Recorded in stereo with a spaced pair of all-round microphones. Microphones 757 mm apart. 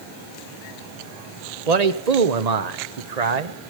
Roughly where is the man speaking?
Right.